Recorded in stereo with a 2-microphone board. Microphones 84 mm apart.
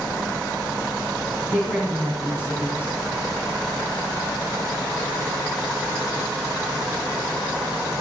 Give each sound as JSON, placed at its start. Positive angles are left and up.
{"t": 1.5, "sound": "a woman speaking", "side_deg": 25, "distance_m": 4.0}